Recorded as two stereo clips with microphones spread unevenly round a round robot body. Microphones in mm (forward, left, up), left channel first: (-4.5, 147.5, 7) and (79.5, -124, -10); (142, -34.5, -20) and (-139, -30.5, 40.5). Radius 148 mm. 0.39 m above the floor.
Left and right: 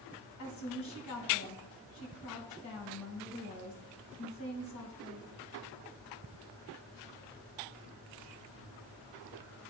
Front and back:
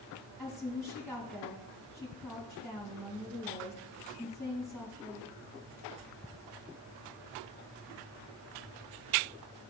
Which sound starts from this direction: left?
A woman speaking, at 0.4 s.